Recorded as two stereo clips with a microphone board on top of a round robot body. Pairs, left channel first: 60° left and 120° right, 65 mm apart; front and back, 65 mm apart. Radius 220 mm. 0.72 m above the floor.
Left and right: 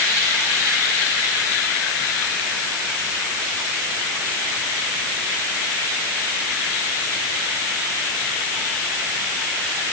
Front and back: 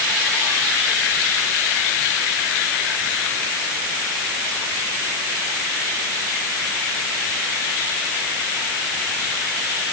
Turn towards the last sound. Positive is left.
No sound to turn to.